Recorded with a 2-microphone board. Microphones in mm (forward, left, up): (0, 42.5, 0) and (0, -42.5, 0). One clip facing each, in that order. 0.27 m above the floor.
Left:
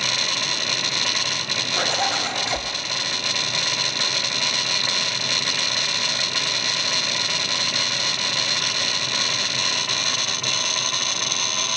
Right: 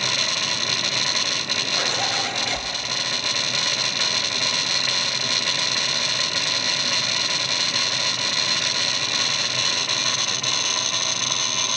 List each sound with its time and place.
1.8 s a zipper: 25° left (ahead or behind), 0.7 m